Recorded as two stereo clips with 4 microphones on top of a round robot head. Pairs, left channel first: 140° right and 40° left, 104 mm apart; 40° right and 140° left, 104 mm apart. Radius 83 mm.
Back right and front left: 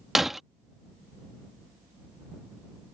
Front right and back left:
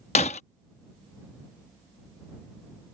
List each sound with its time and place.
0.1 s breaking glass: 45° right